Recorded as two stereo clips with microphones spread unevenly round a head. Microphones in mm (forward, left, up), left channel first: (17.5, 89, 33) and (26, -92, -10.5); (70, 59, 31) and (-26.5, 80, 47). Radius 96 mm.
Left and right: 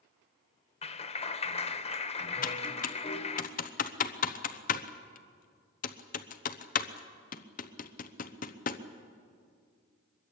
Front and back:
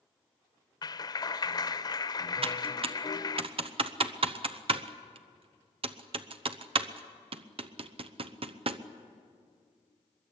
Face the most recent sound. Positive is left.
turn(degrees=145)